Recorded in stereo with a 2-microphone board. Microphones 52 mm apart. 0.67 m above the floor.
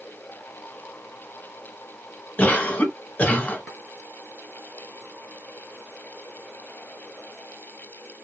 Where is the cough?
25° left (ahead or behind), 1.1 m.